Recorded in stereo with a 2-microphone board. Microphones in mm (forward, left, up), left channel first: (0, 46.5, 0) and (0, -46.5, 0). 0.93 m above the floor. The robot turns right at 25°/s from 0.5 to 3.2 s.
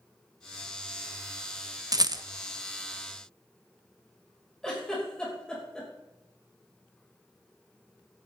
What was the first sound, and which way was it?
A rattle, 40° right (ahead or behind).